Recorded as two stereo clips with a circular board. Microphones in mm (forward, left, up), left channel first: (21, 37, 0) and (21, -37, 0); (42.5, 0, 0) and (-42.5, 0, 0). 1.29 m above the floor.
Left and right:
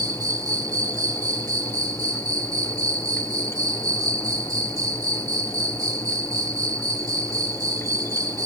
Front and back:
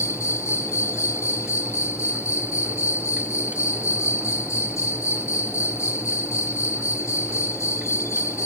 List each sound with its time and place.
0.0 s an insect: 55° right